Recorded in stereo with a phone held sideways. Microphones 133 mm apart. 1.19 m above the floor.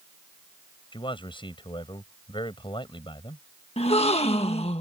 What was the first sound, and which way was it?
A man speaking, 40° left (ahead or behind).